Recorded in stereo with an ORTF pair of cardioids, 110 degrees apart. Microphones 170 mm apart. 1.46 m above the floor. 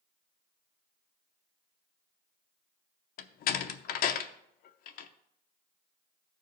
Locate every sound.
3.2 s a door slam: 65° left, 0.7 m